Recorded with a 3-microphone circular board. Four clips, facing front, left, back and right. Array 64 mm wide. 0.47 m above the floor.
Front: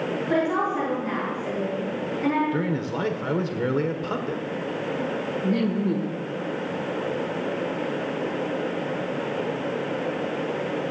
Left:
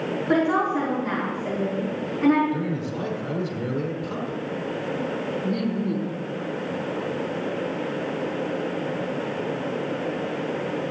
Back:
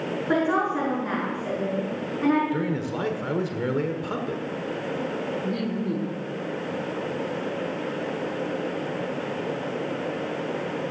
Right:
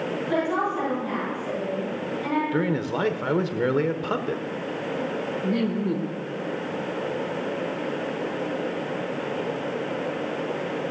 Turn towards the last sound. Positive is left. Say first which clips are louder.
# right 2 dB, front 4 dB
turn(degrees=-60)